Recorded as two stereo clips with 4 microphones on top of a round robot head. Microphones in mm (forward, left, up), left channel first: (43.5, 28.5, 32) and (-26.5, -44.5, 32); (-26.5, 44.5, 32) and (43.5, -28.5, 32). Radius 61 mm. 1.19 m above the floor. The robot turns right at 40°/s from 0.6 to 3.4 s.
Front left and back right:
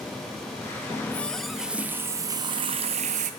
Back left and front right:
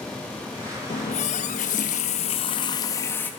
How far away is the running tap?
About 0.7 m.